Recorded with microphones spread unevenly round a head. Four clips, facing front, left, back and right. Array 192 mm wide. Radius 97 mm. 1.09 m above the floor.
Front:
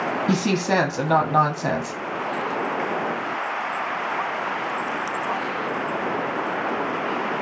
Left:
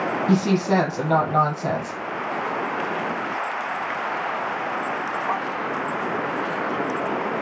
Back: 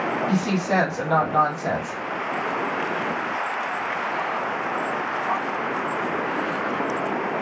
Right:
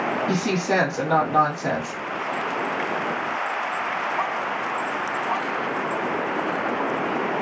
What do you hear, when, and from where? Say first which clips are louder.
0.3 s a woman speaking: left 6 dB, front 3 dB; 20° left, 1.0 m